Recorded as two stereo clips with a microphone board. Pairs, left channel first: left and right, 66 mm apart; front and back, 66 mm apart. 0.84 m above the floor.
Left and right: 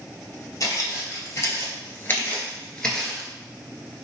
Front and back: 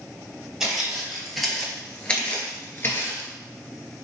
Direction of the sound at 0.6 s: 100° left.